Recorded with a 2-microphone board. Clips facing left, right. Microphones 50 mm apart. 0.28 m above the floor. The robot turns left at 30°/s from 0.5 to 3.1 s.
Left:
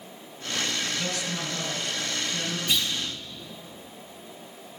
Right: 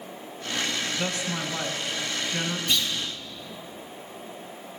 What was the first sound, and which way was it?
A man speaking, 55° right.